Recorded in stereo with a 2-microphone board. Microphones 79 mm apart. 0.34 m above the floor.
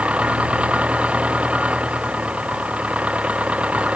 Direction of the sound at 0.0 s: 15° right (ahead or behind).